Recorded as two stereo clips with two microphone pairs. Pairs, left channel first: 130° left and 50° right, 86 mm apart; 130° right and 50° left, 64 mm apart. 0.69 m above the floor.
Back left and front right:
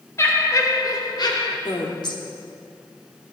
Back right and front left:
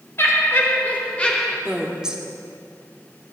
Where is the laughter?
175° right, 2.5 m; by 1.6 s 155° left, 2 m.